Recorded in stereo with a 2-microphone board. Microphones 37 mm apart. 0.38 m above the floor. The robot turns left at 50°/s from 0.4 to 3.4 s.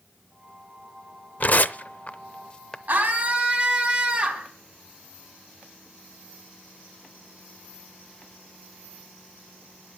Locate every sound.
1.4 s tearing paper: 45° left (ahead or behind), 0.6 m; by 2.8 s 15° left (ahead or behind), 0.6 m
2.9 s a scream: 55° right (ahead or behind), 3.5 m; by 4.5 s 30° right (ahead or behind), 3.5 m